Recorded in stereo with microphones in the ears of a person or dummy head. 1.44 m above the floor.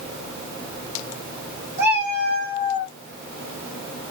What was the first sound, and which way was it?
A cat meowing, 15° right (ahead or behind).